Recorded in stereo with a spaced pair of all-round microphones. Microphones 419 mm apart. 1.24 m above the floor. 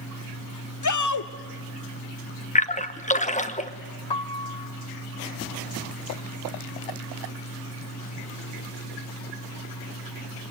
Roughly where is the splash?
Centre.